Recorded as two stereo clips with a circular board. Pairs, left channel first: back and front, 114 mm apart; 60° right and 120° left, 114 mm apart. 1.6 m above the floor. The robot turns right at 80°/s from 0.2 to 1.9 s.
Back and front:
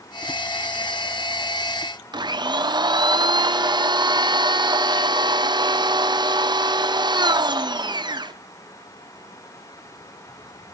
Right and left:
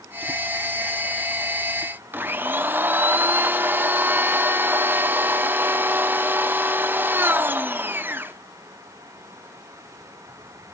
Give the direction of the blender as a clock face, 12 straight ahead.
10 o'clock.